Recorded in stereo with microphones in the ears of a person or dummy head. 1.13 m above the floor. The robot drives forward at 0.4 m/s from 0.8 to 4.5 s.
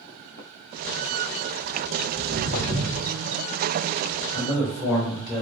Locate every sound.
2.1 s footsteps: 45° right (ahead or behind), 1.9 m; by 3.0 s 50° right (ahead or behind), 1.8 m
4.3 s a man speaking: 5° right (ahead or behind), 2.0 m